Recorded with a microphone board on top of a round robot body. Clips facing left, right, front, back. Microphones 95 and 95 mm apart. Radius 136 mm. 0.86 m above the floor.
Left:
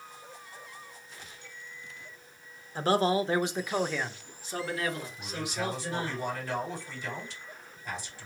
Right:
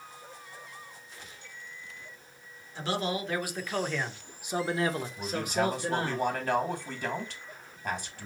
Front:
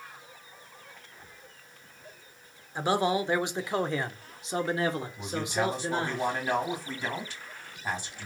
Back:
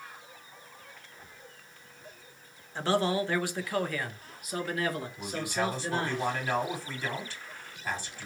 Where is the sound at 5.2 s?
75° right, 2.5 m.